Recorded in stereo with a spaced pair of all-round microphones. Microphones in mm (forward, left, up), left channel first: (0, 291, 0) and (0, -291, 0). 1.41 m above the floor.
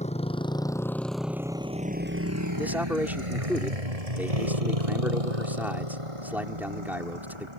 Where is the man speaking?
5° right (ahead or behind).